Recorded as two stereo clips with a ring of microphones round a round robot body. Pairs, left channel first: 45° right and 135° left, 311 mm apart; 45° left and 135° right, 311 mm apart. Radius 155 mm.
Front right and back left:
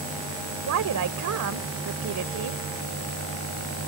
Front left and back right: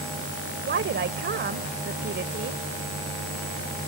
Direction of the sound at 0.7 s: 170° left.